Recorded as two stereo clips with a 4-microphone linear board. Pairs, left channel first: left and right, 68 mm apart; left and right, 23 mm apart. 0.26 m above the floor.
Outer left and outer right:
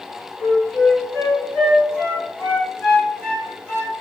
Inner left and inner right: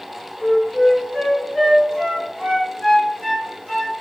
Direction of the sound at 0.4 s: 25° left (ahead or behind).